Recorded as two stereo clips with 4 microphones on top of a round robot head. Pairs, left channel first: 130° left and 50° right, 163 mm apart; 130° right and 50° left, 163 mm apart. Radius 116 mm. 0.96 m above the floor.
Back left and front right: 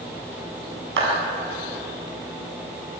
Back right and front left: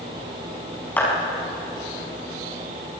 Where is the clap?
50° right, 6.5 m.